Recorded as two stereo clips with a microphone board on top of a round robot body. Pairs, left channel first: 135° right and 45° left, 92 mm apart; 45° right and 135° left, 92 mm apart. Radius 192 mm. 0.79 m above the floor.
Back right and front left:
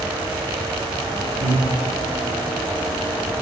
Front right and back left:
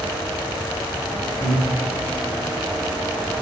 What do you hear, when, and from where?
1.4 s breathing: 55° left, 1.8 m